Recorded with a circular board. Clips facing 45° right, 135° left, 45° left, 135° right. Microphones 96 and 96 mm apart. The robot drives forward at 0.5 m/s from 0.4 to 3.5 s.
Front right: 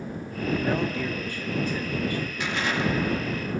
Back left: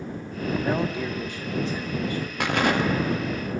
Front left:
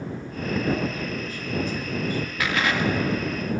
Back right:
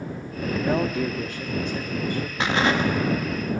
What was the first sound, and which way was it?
A man speaking, 150° right.